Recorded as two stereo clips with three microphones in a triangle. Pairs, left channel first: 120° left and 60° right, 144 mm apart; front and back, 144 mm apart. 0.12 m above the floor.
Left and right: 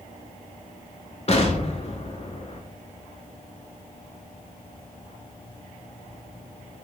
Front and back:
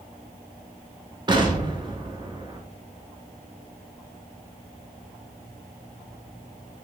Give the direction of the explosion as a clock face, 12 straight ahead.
8 o'clock.